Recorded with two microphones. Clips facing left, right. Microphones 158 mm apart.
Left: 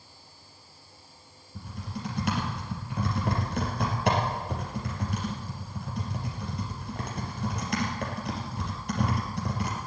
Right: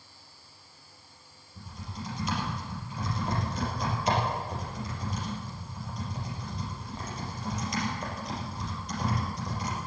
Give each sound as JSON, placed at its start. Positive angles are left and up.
{"t": 1.6, "sound": "typing on a keyboard", "side_deg": 65, "distance_m": 4.0}